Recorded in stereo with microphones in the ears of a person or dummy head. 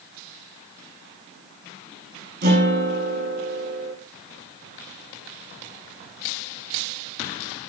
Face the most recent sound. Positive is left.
turn(degrees=-50)  # may be behind; listen again after turning